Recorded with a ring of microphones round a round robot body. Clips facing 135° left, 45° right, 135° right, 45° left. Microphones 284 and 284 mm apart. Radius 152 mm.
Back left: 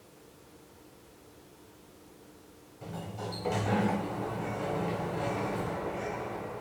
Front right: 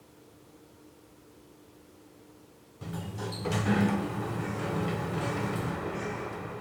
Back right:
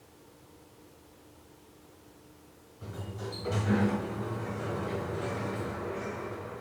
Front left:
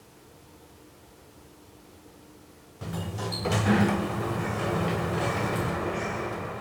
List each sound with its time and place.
2.8 s a sliding door: 20° left, 0.7 m